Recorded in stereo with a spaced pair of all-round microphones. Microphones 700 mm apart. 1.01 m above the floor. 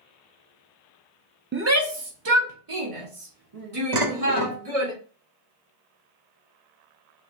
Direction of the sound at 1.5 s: 15° right (ahead or behind).